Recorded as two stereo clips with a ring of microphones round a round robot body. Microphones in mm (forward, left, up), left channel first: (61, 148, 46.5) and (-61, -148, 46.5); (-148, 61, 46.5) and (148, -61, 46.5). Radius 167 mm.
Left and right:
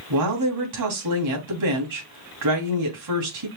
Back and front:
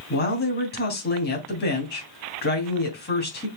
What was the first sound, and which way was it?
A woman speaking, 145° right.